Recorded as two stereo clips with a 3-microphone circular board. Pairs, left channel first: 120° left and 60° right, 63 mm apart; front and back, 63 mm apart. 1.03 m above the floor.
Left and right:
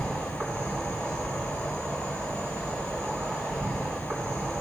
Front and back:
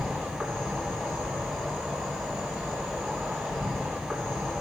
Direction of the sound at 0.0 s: 110° right.